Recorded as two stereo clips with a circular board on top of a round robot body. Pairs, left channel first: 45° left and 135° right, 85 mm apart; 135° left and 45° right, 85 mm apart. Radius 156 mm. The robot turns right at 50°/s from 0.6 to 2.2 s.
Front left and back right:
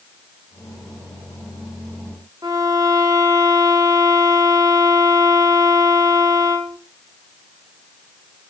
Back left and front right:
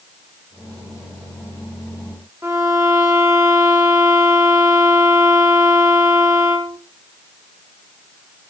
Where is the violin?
100° right, 0.7 m.